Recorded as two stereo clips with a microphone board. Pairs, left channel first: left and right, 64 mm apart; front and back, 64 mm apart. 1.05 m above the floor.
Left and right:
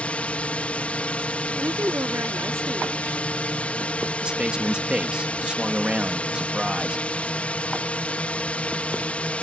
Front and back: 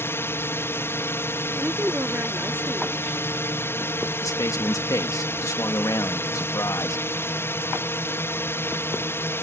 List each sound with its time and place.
0.0 s a drone: 30° left
1.6 s a woman speaking: 125° right
4.2 s a man speaking: 20° right